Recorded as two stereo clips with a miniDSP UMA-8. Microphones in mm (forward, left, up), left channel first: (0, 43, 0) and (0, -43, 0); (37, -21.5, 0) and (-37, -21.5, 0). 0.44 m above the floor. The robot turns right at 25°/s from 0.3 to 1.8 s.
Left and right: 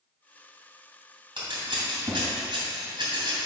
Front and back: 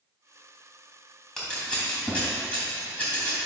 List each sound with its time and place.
1.4 s scissors: 85° right, 3 m; by 3.4 s 75° right, 3 m